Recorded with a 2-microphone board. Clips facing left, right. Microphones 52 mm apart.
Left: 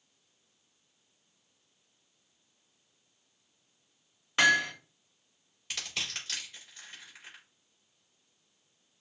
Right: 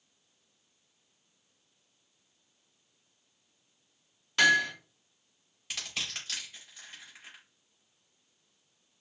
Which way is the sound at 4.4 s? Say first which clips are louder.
Right 1 dB; 20° left (ahead or behind).